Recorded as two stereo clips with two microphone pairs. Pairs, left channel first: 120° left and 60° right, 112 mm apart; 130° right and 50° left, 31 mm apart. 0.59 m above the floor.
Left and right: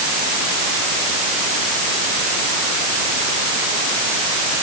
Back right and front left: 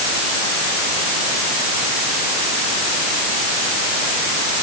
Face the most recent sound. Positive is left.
No sound to turn to.